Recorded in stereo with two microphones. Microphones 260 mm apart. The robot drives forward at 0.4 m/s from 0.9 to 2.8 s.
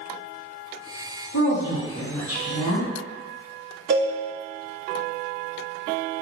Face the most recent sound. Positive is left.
turn(degrees=-40)  # may be behind; listen again after turning